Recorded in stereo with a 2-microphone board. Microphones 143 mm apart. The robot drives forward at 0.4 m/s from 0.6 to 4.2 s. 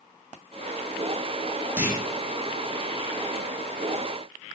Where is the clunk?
15° right (ahead or behind), 0.9 m.